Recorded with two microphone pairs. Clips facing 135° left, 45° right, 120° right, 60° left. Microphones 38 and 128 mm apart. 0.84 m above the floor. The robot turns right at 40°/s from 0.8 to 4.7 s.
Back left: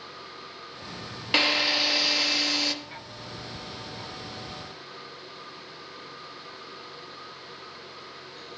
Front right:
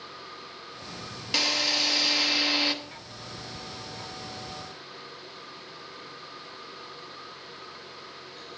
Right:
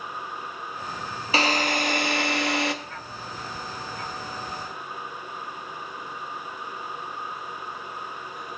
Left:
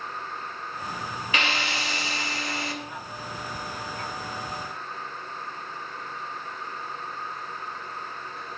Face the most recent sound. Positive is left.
turn(degrees=-35)